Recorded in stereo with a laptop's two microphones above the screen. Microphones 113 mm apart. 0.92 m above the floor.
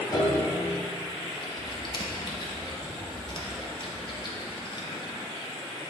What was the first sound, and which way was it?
A piano, 35° left (ahead or behind).